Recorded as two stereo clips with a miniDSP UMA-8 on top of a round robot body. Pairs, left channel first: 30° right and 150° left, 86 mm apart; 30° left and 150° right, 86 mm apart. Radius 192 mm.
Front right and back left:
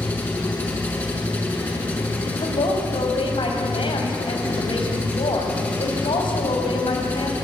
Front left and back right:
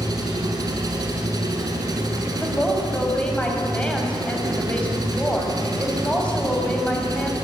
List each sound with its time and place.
0.0 s an engine running: 100° right, 5 m
2.2 s a woman speaking: 45° right, 6 m